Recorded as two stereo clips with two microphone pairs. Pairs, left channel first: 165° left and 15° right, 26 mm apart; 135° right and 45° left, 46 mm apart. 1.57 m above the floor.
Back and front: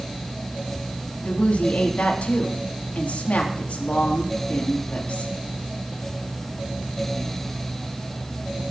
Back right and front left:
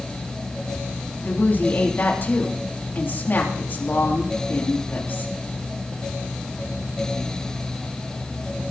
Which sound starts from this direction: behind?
A woman speaking, at 1.2 s.